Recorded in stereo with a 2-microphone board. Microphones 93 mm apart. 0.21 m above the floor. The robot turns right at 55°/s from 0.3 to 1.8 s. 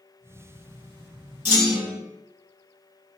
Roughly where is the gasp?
I don't hear a gasp.